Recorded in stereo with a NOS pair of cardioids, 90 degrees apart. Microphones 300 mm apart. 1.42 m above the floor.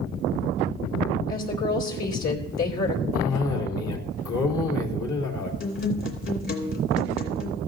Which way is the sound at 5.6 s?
40° left.